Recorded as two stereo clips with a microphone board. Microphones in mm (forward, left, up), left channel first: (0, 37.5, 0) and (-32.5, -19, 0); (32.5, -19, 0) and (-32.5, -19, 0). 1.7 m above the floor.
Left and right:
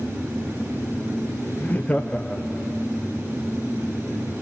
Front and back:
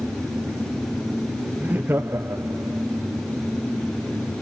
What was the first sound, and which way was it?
Laughter, 120° left.